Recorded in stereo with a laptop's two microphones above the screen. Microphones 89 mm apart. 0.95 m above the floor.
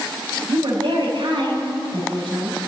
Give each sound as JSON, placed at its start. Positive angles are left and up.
{"t": 0.5, "sound": "a woman speaking", "side_deg": -80, "distance_m": 4.5}